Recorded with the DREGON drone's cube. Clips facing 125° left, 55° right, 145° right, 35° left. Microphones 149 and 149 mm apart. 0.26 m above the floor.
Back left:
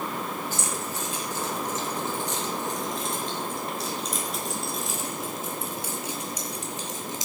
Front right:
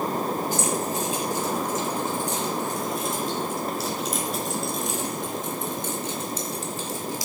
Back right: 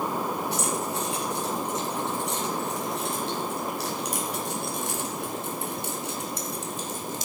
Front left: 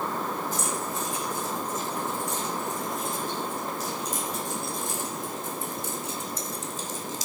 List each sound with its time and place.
0.5 s keys jangling: 130° right, 5 m; by 7.2 s 170° right, 2.5 m